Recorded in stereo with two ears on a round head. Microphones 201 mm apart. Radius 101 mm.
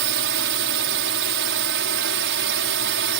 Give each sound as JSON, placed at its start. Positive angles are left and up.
{"t": 0.0, "sound": "a drone", "side_deg": -55}